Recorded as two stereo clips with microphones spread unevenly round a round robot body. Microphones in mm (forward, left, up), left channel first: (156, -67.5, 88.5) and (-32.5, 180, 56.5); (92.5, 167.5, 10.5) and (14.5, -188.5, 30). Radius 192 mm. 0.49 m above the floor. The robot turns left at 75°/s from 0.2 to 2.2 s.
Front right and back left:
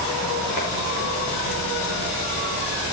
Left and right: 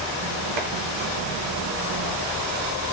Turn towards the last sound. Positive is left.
turn(degrees=135)